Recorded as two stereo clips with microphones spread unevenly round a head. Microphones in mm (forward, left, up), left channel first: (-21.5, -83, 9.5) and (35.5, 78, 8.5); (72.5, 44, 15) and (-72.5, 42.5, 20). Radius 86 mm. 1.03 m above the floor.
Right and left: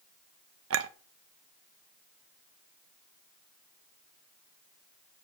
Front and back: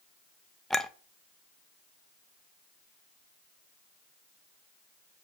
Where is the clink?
90° left, 0.6 m.